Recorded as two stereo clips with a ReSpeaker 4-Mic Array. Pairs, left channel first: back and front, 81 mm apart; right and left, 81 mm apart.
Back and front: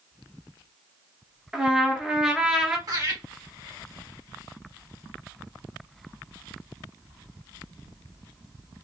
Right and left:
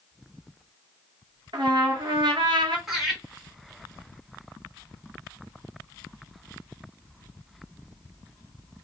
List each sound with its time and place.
1.5 s a trumpet: 80° left, 0.8 m
2.9 s laughter: 5° left, 1.4 m